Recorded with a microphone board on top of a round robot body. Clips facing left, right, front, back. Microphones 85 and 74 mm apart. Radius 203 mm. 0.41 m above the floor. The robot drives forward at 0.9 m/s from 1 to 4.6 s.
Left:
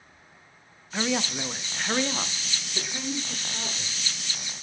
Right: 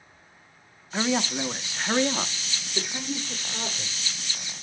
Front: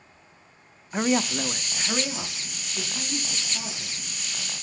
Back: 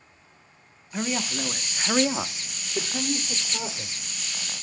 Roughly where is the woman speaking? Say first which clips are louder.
Right 2 dB, front 5 dB; ahead.